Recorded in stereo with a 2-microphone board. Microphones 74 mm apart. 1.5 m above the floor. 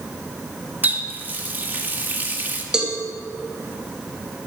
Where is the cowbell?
10° right (ahead or behind), 2 m.